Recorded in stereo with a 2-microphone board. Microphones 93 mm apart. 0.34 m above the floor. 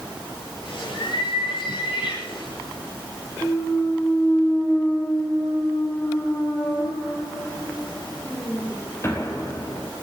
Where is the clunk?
30° left (ahead or behind), 3 m.